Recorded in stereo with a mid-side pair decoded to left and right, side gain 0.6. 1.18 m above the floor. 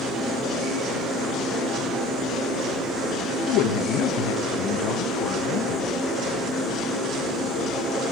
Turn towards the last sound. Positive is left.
turn(degrees=65)